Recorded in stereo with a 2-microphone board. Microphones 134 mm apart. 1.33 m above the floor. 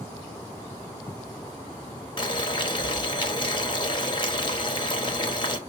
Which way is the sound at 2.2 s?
35° left (ahead or behind).